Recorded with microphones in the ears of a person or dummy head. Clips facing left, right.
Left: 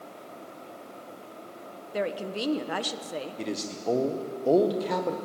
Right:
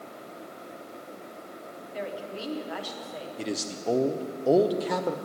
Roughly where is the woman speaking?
Left.